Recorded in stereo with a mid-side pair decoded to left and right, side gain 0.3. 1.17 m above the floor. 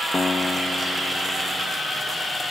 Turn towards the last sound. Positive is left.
turn(degrees=40)